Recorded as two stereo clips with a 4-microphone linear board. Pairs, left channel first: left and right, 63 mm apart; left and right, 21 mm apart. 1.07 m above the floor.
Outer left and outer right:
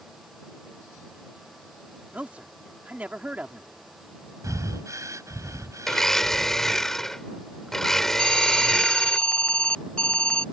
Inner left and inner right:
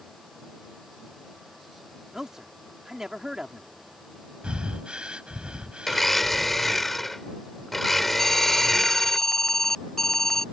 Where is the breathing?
55° right (ahead or behind).